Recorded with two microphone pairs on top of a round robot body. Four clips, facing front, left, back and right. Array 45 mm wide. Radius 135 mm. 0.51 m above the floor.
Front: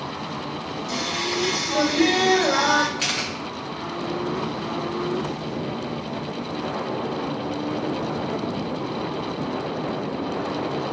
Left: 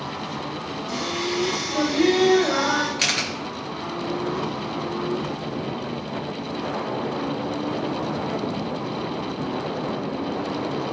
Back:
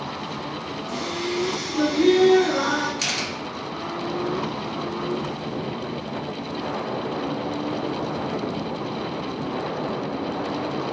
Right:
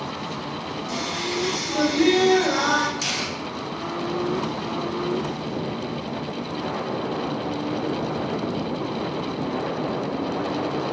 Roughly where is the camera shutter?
Left.